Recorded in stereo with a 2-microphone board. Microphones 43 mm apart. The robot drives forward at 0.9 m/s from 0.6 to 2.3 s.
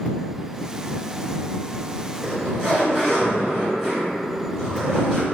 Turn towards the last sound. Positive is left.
turn(degrees=-5)  # may be behind; listen again after turning